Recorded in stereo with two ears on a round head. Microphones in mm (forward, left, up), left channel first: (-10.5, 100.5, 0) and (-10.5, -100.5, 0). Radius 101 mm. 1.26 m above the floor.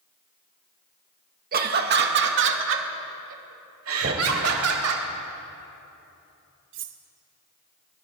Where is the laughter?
40° right (ahead or behind), 1.8 m; by 5.0 s 75° right (ahead or behind), 4 m.